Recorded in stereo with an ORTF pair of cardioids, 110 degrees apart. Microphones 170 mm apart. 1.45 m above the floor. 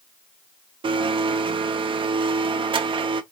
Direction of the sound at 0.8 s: 30° right.